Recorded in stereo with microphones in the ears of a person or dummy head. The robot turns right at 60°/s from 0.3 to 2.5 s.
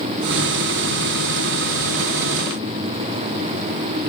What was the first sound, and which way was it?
Only background noise.